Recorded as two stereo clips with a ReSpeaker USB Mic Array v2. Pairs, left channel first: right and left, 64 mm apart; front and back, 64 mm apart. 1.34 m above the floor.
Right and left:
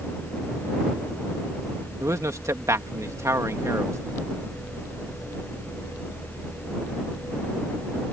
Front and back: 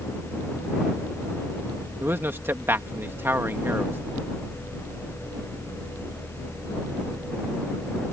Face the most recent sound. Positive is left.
turn(degrees=125)